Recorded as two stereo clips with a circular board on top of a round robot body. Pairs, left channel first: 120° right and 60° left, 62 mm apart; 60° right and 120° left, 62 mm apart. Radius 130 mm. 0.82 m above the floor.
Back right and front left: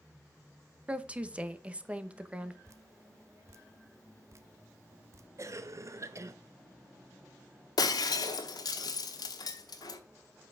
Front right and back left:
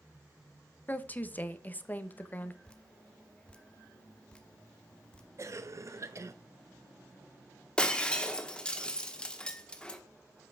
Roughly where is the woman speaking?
Ahead.